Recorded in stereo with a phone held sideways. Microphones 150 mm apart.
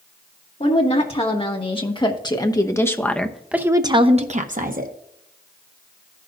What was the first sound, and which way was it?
A woman speaking, 45° left (ahead or behind).